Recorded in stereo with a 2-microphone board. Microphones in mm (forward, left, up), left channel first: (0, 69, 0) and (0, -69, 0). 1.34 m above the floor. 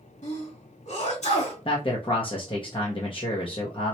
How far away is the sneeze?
About 2 m.